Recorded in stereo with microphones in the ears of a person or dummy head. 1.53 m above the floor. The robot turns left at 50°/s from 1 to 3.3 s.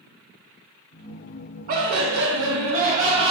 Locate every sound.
1.7 s laughter: 65° right, 0.7 m; by 3.3 s 145° right, 0.7 m